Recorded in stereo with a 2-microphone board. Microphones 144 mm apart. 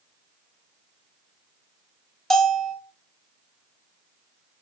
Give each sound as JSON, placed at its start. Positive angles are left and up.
{"t": 2.3, "sound": "a bell", "side_deg": 5, "distance_m": 0.6}